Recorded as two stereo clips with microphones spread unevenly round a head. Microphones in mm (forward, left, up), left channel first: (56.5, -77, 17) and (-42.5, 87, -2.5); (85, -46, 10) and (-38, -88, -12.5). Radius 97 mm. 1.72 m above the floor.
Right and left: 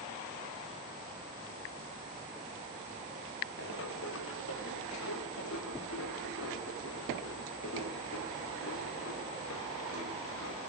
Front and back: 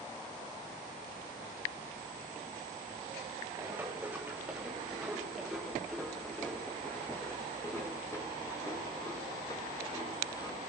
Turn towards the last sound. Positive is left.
turn(degrees=-35)